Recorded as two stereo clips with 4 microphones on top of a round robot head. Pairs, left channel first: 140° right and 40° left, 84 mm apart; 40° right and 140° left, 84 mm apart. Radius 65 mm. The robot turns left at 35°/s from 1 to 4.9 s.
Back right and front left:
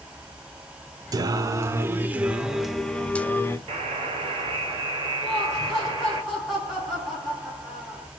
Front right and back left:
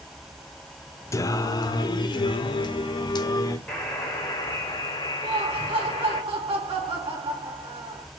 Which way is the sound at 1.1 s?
5° left.